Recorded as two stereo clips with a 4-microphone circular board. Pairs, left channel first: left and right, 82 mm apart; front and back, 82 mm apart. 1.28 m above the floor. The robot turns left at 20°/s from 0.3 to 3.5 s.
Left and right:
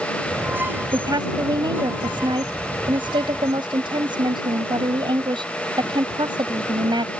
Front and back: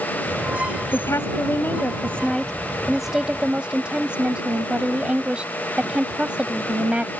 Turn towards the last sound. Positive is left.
turn(degrees=-105)